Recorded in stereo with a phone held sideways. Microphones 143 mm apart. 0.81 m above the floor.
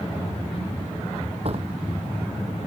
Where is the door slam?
50° right (ahead or behind).